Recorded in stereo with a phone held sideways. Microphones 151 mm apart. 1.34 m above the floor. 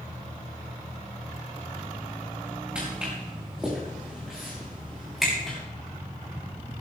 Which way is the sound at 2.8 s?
5° right (ahead or behind).